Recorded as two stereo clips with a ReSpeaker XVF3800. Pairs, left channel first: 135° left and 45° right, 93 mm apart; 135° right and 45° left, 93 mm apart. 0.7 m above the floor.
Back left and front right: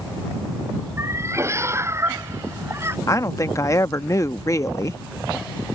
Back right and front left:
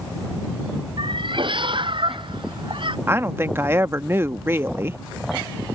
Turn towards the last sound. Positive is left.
turn(degrees=100)